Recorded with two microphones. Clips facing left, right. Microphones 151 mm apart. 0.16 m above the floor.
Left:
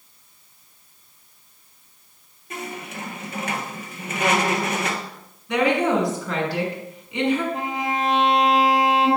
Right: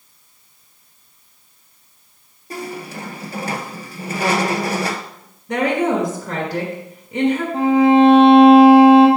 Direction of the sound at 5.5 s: 40° right (ahead or behind).